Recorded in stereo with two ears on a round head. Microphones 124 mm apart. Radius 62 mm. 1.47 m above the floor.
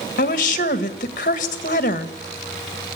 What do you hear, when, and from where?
0.2 s a woman speaking: 60° left (ahead or behind), 1.7 m